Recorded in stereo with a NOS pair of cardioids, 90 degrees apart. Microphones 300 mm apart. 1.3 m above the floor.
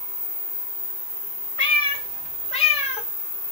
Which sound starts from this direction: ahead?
A cat meowing, at 1.6 s.